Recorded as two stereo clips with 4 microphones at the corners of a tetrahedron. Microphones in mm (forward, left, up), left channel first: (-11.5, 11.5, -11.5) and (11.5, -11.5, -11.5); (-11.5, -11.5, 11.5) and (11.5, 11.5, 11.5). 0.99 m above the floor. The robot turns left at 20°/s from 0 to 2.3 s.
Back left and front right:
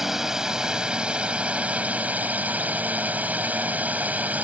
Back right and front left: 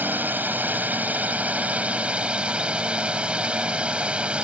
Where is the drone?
40° left; by 4.4 s 10° right.